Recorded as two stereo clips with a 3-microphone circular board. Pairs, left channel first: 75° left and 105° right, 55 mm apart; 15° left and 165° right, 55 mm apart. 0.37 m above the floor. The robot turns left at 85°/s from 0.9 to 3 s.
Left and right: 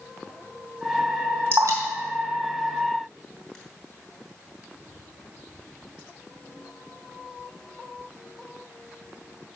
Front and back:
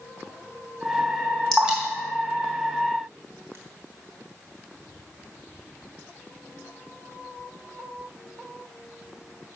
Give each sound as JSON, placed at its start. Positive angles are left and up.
{"t": 1.5, "sound": "dripping", "azimuth_deg": -70, "distance_m": 3.0}